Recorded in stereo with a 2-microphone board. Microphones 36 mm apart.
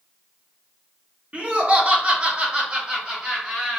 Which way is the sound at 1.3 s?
30° right (ahead or behind).